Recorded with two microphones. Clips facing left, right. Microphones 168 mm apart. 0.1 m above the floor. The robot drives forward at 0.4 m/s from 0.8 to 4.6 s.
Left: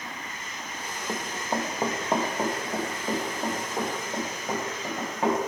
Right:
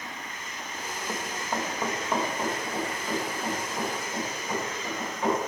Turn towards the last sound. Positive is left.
turn(degrees=45)  # may be behind; listen again after turning